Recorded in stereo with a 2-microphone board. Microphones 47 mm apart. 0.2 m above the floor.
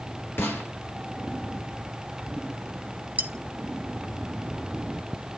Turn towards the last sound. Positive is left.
turn(degrees=-35)  # may be behind; listen again after turning